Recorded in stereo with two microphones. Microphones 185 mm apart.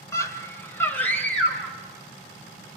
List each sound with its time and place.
0.1 s a scream: 15° left (ahead or behind), 1.4 m; by 1.8 s 5° left (ahead or behind), 2.5 m